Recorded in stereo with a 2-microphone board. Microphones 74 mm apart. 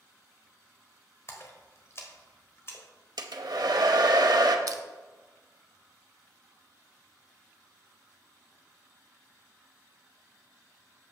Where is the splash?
40° left (ahead or behind), 1.3 m.